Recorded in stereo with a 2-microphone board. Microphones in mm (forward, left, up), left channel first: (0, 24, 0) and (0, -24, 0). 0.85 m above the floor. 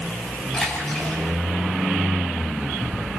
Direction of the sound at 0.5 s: 20° left (ahead or behind).